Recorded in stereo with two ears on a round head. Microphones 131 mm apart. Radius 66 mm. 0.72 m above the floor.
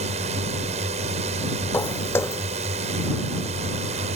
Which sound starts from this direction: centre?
Footsteps, at 1.7 s.